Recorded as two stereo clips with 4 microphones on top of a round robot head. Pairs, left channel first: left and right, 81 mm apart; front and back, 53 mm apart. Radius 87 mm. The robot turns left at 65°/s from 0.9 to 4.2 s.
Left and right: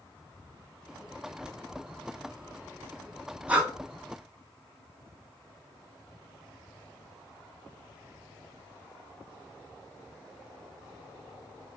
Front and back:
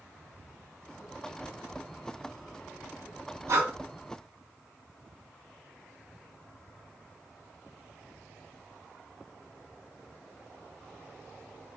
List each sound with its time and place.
3.5 s breathing: 160° right, 0.7 m; by 3.7 s 175° right, 0.7 m